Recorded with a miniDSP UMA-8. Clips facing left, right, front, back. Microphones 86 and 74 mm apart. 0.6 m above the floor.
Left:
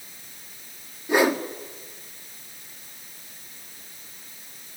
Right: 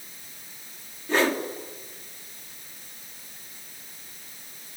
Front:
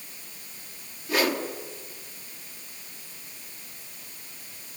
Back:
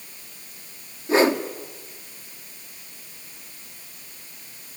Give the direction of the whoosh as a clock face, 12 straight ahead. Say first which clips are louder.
Left 3 dB, back 7 dB; 7 o'clock.